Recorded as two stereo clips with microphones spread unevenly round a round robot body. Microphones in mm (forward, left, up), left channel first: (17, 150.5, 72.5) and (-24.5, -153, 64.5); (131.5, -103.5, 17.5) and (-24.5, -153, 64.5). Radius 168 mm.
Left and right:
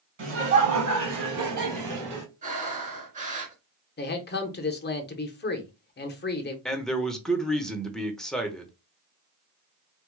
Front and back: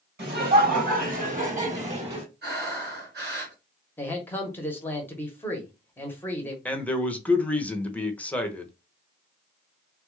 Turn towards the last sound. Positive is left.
turn(degrees=-5)